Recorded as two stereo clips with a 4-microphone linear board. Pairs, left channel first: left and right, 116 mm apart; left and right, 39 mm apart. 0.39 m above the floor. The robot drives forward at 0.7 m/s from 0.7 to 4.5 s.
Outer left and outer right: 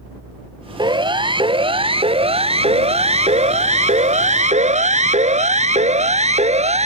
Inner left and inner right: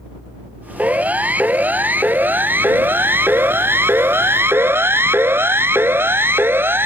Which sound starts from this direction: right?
A siren, at 0.8 s.